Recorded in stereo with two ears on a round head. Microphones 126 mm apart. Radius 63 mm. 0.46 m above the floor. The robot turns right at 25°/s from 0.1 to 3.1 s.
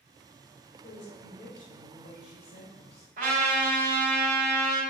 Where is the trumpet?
60° right (ahead or behind), 2.5 m.